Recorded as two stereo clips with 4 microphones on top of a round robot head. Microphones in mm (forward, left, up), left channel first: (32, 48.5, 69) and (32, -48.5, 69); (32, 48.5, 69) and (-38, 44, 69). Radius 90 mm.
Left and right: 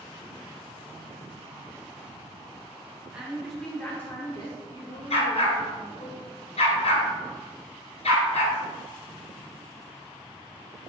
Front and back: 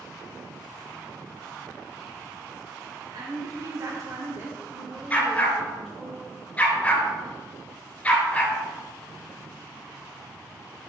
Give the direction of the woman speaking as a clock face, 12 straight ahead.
6 o'clock.